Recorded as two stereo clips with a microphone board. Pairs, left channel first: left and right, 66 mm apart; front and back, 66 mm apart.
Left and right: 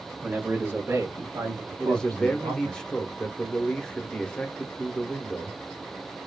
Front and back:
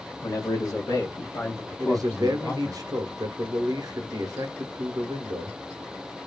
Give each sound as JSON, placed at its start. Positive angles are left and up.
{"t": 0.2, "sound": "a man speaking", "azimuth_deg": -15, "distance_m": 1.0}
{"t": 1.8, "sound": "a man speaking", "azimuth_deg": 170, "distance_m": 0.9}